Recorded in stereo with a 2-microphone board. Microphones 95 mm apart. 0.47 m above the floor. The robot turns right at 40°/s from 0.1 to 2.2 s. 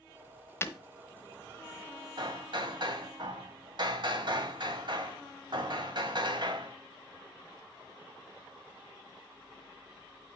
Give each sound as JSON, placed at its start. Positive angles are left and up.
{"t": 0.6, "sound": "breaking glass", "side_deg": 25, "distance_m": 1.1}
{"t": 2.2, "sound": "hammering", "side_deg": -55, "distance_m": 1.7}